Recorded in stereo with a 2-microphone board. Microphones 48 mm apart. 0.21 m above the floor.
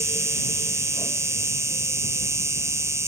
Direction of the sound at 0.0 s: 75° right (ahead or behind).